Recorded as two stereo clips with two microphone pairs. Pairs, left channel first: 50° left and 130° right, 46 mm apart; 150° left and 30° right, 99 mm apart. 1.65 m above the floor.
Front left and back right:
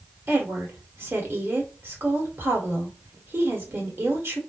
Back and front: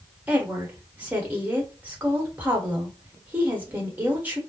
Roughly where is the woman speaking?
Right.